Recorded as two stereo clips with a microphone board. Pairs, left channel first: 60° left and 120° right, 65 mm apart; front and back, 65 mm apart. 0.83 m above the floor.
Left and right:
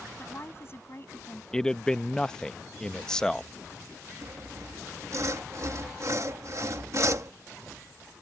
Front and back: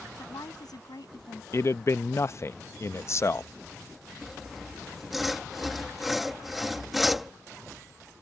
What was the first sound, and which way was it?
A woman speaking, 10° left.